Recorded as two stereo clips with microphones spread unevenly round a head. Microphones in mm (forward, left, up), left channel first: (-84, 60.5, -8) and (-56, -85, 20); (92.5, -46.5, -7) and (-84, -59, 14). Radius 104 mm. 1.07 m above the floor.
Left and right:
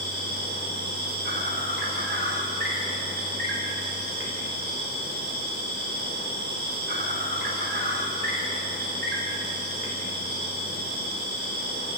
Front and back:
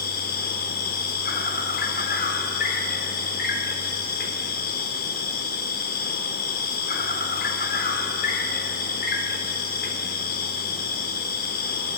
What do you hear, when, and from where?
0.0 s an insect: 30° right, 3.5 m